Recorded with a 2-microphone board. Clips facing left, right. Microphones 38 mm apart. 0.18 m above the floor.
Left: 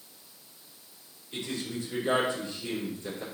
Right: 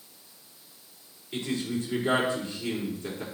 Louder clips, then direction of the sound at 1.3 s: Right 4 dB; 40° right (ahead or behind).